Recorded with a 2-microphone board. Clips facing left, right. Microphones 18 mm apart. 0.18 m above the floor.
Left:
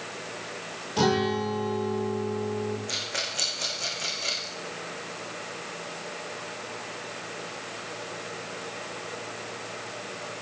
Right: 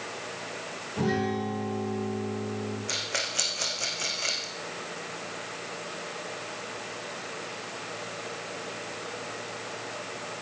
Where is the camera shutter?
No camera shutter in this recording.